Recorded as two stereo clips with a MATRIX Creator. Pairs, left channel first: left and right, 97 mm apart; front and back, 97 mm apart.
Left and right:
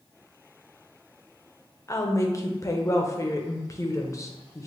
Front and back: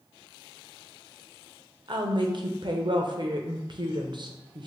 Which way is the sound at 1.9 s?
145° left.